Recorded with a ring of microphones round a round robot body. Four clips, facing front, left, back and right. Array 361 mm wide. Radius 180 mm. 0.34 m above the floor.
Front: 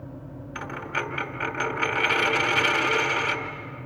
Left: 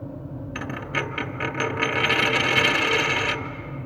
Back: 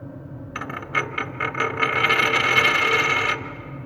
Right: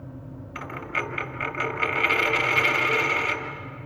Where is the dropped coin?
120° left, 1.2 m.